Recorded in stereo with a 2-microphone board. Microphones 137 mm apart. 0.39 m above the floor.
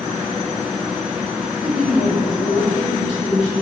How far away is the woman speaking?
About 1.6 m.